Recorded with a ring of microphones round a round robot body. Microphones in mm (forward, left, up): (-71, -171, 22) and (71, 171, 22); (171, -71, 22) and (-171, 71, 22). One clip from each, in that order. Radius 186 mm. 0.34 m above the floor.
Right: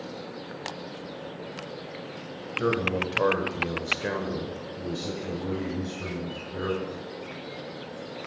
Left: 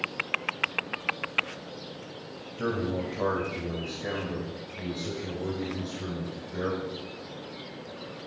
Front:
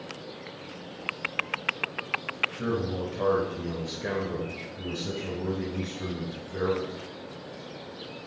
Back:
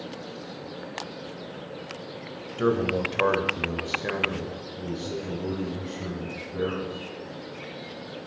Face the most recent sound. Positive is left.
turn(degrees=-50)